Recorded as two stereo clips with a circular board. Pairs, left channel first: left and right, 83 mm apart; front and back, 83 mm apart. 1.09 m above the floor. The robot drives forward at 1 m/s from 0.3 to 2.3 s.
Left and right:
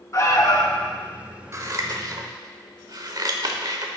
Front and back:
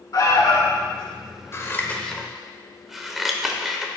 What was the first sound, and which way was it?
An alarm, 40° left.